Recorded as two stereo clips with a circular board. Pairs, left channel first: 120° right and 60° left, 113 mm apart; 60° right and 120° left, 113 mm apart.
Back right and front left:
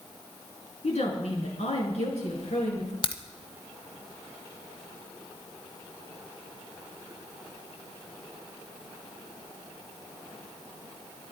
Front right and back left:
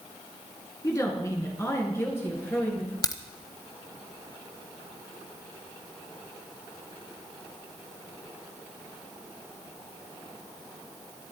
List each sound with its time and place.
0.8 s a woman speaking: 120° right, 5 m; by 2.9 s 130° right, 6.5 m
3.0 s a crack: 110° right, 1.3 m